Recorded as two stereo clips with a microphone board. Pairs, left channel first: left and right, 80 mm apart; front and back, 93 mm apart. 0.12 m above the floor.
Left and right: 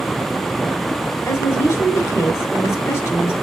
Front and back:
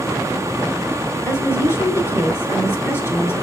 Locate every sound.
1.2 s a woman speaking: 50° left, 1.5 m